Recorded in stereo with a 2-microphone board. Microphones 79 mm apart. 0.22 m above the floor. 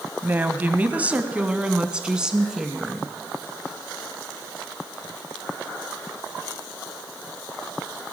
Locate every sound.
0.2 s a woman speaking: 25° right (ahead or behind), 1.0 m; by 3.1 s 5° right (ahead or behind), 2.5 m